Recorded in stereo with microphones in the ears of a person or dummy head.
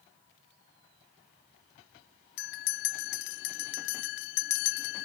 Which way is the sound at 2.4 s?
60° left (ahead or behind).